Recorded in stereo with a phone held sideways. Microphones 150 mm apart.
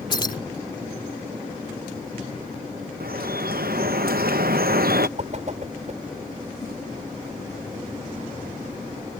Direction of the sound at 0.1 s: 30° left (ahead or behind).